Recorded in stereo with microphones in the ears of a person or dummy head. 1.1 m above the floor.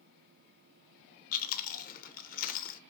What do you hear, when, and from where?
1.3 s chewing: 40° left (ahead or behind), 0.6 m